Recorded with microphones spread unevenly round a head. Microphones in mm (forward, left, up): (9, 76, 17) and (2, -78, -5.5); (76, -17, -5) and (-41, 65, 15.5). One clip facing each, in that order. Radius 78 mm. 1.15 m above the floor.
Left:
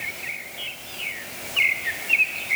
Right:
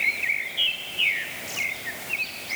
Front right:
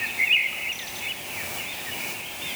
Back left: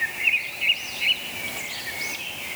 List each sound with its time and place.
Only background noise.